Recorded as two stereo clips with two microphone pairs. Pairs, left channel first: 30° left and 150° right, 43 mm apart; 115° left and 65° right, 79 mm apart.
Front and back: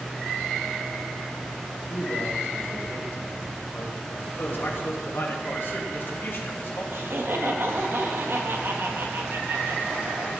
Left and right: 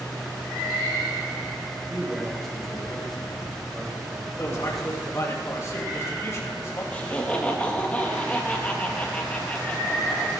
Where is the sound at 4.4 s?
60° left, 2.5 m.